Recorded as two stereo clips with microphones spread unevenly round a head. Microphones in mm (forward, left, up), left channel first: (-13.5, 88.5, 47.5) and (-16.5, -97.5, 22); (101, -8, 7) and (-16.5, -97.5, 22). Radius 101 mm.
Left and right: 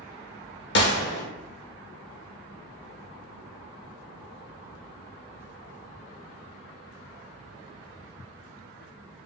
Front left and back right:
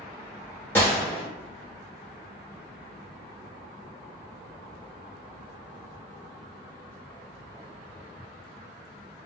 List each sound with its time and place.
0.8 s a gunshot: 120° left, 0.7 m